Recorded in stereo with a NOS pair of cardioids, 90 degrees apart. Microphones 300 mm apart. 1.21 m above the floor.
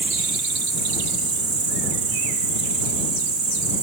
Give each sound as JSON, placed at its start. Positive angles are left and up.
{"t": 0.0, "sound": "an insect", "azimuth_deg": -65}